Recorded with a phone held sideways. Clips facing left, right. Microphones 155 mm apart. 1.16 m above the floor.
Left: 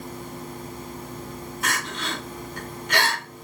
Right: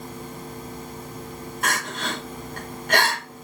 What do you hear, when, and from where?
1.6 s crying: 50° right (ahead or behind), 1.0 m